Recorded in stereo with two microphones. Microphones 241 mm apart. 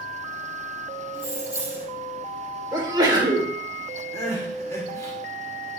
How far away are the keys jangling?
About 2.5 m.